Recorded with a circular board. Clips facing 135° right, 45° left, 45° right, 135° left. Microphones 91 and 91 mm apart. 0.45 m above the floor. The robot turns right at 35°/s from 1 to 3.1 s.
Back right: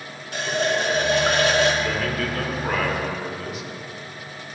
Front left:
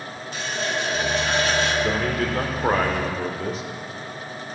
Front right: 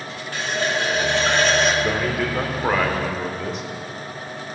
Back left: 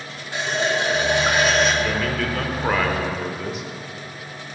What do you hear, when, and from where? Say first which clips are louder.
0.3 s a running tap: back right 5 dB, back left 1 dB; 160° right, 1.1 m; by 1.7 s 135° right, 1.1 m
1.8 s a man speaking: front left 2 dB, front right 1 dB; 5° left, 1.0 m; by 3.6 s 45° left, 1.0 m